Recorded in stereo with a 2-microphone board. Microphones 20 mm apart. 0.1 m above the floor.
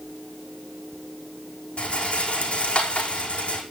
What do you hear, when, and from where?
1.8 s a rattle: 65° left (ahead or behind), 5 m